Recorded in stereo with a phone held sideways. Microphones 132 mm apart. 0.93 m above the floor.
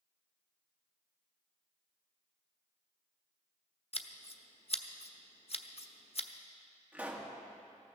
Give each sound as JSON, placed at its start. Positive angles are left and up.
{"t": 3.9, "sound": "scissors", "side_deg": 50, "distance_m": 0.7}
{"t": 6.9, "sound": "a pop", "side_deg": -10, "distance_m": 1.4}